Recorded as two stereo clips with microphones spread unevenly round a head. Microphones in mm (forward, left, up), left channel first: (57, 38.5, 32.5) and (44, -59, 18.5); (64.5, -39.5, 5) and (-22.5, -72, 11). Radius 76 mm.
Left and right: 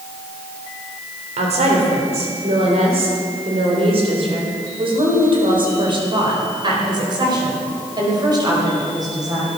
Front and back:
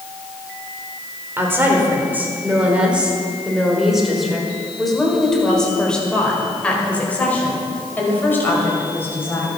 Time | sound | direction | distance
1.4 | a woman speaking | 95° right | 4 m